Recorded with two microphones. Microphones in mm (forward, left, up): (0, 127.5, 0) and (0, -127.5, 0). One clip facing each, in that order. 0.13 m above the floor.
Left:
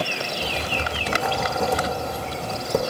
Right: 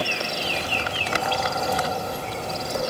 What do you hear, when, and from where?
0.4 s writing: 70° left (ahead or behind), 0.7 m